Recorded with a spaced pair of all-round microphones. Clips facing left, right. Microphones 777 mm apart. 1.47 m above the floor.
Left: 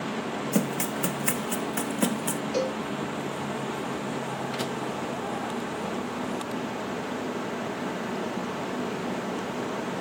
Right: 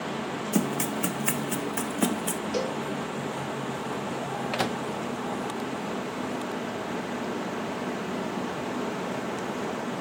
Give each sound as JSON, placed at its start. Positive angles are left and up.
{"t": 0.5, "sound": "running footsteps", "side_deg": 10}
{"t": 2.5, "sound": "a cowbell", "side_deg": -50}
{"t": 4.5, "sound": "a microwave", "side_deg": -80}